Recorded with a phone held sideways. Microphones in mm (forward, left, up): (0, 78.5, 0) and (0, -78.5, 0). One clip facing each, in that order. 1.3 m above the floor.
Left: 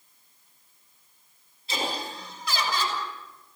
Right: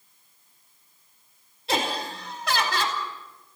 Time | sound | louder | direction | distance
1.7 | laughter | right 4 dB | 65° right (ahead or behind) | 4.5 m